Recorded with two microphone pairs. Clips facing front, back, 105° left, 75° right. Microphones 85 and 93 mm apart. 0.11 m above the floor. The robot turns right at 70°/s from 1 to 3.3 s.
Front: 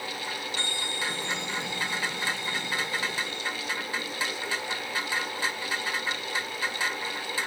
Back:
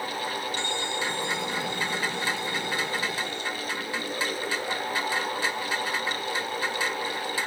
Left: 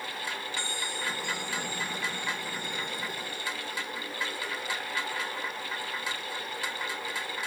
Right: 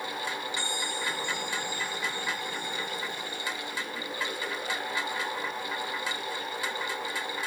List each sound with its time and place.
0.6 s a bell: 85° right, 3 m; by 3.5 s 75° left, 3 m